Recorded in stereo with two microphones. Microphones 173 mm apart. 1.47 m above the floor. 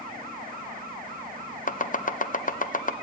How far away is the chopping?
About 0.7 m.